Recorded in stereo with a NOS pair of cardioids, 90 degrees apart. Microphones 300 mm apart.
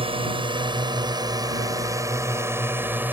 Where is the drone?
15° right; by 3.1 s 5° right.